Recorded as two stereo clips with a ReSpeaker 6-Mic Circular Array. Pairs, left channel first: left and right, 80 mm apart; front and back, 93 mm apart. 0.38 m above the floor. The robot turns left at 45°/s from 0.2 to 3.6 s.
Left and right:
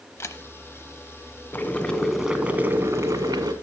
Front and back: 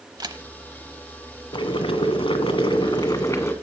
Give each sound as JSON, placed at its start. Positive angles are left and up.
{"t": 0.2, "sound": "a camera shutter", "azimuth_deg": 145, "distance_m": 0.8}
{"t": 1.5, "sound": "boiling", "azimuth_deg": 30, "distance_m": 1.0}